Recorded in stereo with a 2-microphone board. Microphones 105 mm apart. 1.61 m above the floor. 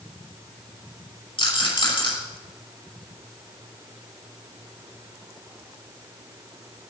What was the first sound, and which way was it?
A rattle, 55° left (ahead or behind).